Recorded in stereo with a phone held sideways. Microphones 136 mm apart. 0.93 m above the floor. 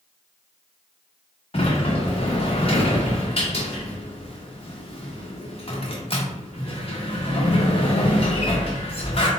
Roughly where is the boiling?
I don't hear boiling.